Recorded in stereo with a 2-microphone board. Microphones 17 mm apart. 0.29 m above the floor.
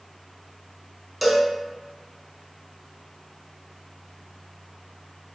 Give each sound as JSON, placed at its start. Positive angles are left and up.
{"t": 1.2, "sound": "a cowbell", "side_deg": -10, "distance_m": 0.5}